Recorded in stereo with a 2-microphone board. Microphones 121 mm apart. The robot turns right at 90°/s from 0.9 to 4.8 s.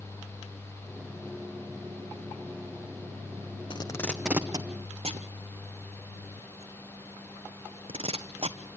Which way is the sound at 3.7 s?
45° left (ahead or behind).